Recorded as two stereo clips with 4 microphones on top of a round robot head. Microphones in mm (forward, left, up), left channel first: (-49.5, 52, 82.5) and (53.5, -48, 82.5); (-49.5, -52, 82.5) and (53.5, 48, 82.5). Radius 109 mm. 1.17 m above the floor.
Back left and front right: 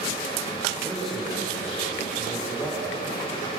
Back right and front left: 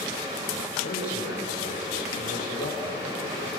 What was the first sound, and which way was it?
A man speaking, 135° right.